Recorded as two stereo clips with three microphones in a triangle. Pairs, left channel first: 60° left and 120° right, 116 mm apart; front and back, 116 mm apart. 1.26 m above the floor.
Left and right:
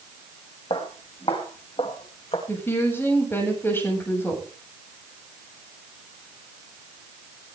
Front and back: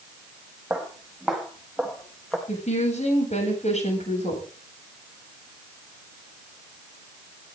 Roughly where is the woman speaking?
Ahead.